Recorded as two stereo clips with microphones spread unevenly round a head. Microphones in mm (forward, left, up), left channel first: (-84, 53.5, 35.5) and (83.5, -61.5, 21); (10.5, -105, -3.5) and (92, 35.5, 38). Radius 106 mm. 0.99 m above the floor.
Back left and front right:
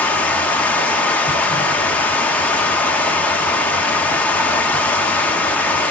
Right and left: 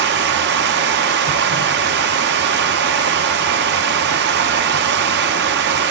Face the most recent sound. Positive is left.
turn(degrees=65)